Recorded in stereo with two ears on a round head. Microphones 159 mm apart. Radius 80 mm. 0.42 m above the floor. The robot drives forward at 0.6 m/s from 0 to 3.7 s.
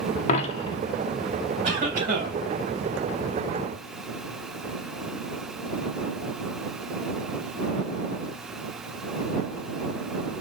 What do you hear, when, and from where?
0.3 s a dropped coin: 40° left (ahead or behind), 0.5 m; by 0.8 s 30° left (ahead or behind), 0.7 m
1.6 s a cough: 40° right (ahead or behind), 2.5 m; by 2.4 s 45° right (ahead or behind), 2 m